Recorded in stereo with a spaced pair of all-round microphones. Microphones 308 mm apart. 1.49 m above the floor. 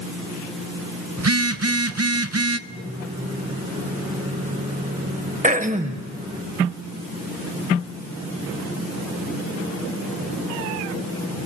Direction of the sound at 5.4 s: 25° right (ahead or behind).